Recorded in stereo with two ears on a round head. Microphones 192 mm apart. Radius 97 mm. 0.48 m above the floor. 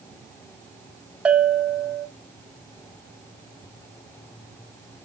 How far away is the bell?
About 0.6 m.